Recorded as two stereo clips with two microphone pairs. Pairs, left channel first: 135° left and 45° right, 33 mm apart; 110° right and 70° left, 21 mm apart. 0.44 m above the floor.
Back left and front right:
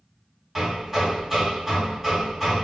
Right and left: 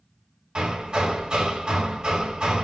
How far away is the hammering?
About 3 m.